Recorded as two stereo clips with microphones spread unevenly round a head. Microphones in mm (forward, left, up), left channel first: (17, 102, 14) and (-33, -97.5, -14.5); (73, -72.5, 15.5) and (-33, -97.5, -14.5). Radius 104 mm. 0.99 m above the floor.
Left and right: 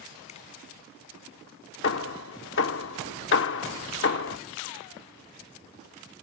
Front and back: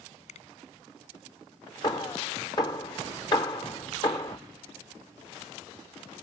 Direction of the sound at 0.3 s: 15° left.